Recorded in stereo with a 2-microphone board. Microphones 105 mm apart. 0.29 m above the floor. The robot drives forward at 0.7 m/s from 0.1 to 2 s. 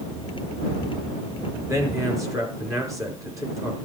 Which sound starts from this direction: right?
A man speaking, at 1.7 s.